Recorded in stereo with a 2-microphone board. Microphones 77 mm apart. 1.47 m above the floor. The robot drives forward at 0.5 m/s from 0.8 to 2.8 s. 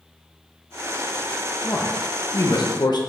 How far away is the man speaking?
About 1.2 m.